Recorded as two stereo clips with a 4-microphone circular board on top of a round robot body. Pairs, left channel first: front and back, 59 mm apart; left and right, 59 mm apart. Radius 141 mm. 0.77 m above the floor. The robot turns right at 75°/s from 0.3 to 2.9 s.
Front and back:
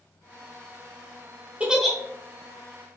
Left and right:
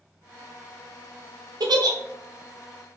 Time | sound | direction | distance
1.6 | a giggle | 110° right | 1.4 m